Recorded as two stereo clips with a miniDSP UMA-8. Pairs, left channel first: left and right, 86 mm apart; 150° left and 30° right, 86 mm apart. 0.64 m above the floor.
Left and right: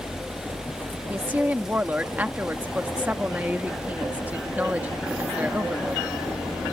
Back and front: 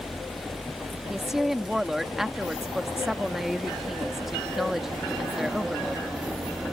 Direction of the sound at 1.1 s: 110° right.